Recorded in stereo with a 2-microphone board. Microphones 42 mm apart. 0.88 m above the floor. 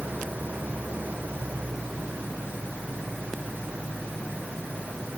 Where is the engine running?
45° right (ahead or behind).